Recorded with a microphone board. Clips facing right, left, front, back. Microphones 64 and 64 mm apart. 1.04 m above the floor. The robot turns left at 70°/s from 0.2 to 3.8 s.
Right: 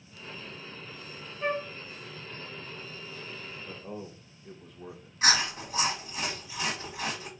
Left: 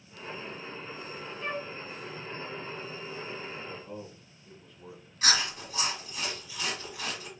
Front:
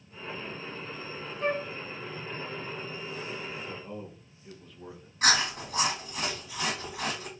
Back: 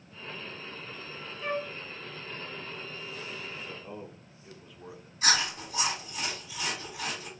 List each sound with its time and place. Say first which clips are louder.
1.4 s a flute: right 5 dB, front 3 dB; 35° right, 0.9 m; by 1.7 s 50° right, 0.9 m
3.7 s a man speaking: right 1 dB, front 2 dB; 85° right, 1.1 m; by 5.1 s 95° right, 1.1 m
5.2 s chewing: right 2 dB, front 2 dB; 30° right, 1.4 m